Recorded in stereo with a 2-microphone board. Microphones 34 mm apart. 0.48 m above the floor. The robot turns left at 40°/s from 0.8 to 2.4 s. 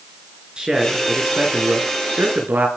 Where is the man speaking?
25° right, 6 m; by 2.7 s 90° right, 6 m.